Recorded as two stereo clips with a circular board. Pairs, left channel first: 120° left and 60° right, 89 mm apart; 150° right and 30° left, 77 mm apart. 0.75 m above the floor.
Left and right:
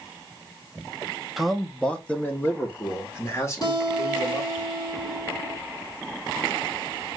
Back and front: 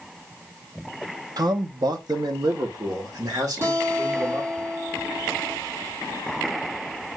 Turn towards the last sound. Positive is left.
turn(degrees=80)